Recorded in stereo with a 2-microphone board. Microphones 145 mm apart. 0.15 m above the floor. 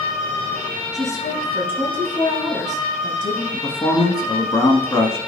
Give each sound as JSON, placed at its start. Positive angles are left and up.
{"t": 0.9, "sound": "a woman speaking", "side_deg": 25, "distance_m": 2.5}
{"t": 3.5, "sound": "a man speaking", "side_deg": 25, "distance_m": 1.1}